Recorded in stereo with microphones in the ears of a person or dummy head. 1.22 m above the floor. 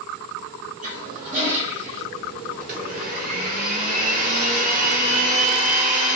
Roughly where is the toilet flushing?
Right.